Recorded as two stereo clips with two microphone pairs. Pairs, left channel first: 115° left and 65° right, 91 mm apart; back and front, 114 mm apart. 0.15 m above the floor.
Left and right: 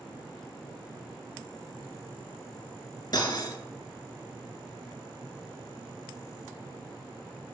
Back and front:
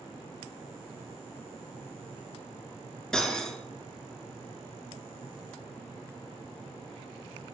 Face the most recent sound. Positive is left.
turn(degrees=95)